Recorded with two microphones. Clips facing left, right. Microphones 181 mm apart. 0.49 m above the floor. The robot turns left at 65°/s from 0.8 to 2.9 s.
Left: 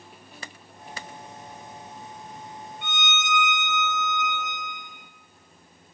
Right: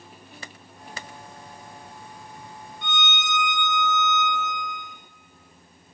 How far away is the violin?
About 1.2 m.